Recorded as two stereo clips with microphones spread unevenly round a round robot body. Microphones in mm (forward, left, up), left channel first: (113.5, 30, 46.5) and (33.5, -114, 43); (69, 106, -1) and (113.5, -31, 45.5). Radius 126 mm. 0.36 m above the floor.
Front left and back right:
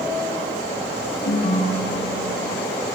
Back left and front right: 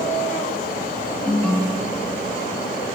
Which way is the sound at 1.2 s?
30° left.